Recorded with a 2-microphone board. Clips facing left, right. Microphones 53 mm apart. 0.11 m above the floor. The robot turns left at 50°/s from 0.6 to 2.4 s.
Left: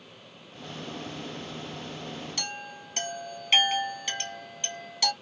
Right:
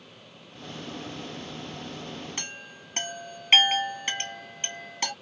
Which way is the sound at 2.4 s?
35° right (ahead or behind).